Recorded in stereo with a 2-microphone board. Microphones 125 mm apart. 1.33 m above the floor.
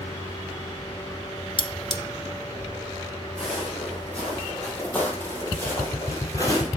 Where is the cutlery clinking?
40° left (ahead or behind), 0.5 m.